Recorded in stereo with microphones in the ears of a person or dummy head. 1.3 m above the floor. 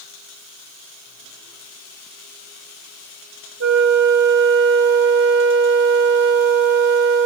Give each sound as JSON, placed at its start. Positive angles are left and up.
{"t": 3.6, "sound": "a flute", "side_deg": -60, "distance_m": 0.8}